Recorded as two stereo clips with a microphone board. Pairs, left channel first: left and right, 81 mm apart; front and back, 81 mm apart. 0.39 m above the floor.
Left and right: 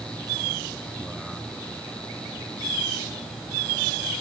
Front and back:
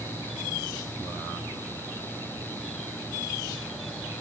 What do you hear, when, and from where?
Only background noise.